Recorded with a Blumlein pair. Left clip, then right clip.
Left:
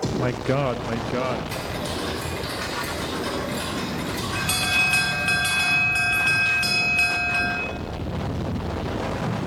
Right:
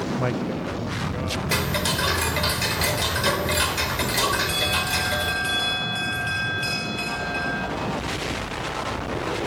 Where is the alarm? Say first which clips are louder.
Left 1 dB; 20° left, 6 m.